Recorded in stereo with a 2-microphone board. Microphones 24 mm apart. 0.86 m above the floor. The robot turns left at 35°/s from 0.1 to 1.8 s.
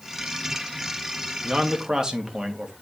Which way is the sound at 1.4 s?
45° right (ahead or behind).